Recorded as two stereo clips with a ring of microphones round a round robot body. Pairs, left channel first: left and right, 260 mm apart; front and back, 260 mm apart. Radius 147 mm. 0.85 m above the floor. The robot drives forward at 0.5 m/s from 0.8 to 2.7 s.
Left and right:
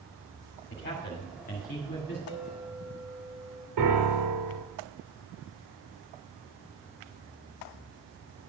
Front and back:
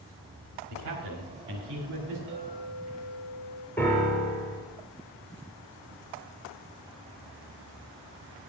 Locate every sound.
0.7 s a man speaking: 140° left, 1.9 m; by 2.2 s 150° left, 2.5 m
2.3 s a clink: 135° right, 3 m; by 3.7 s 140° right, 3 m
3.8 s a piano: 85° right, 2.5 m